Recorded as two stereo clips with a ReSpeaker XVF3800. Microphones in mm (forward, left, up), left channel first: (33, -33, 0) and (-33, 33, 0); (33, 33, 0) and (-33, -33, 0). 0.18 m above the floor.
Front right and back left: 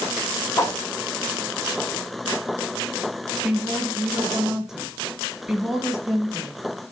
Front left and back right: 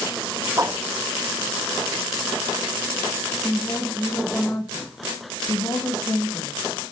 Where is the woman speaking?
55° left, 1.6 m.